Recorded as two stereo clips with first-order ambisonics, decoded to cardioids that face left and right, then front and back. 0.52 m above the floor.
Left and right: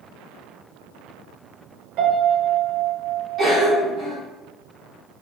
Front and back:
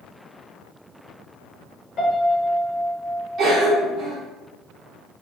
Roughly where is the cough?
Behind right.